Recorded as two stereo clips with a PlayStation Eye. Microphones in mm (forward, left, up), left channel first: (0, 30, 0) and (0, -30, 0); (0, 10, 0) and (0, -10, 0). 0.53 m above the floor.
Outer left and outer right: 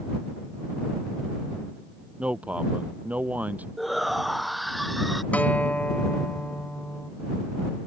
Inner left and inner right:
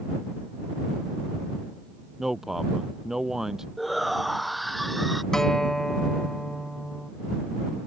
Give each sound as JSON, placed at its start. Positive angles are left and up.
{"t": 2.2, "sound": "a man speaking", "side_deg": -20}
{"t": 3.8, "sound": "a shout", "side_deg": 0}
{"t": 5.3, "sound": "a guitar", "side_deg": 25}